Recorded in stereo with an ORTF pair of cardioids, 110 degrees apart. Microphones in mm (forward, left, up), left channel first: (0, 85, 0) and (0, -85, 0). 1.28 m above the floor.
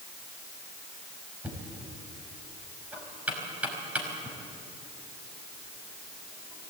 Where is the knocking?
10° right, 5.5 m.